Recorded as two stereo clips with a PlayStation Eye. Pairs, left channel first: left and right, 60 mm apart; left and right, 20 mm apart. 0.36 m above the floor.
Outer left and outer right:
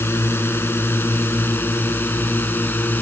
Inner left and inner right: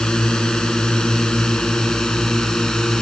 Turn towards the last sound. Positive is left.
turn(degrees=30)  # may be behind; listen again after turning